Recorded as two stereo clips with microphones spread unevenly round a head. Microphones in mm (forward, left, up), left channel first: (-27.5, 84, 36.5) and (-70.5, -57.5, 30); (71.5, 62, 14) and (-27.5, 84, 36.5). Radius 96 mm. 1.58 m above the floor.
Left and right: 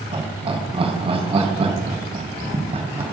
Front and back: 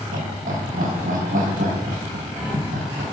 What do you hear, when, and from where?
0.1 s laughter: 160° right, 3 m